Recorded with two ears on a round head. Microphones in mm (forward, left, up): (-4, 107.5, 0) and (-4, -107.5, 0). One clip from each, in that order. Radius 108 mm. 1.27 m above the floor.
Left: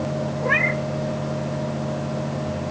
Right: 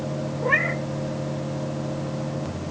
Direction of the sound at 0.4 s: 10° left (ahead or behind).